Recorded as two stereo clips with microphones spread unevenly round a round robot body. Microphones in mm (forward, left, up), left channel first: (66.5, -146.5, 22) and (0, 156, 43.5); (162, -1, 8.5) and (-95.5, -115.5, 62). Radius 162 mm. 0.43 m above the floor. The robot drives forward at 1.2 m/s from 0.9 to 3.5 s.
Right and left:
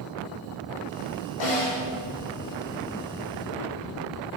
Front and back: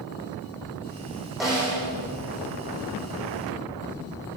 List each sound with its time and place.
1.4 s a snare drum: 70° right, 4 m; by 1.8 s 75° right, 4 m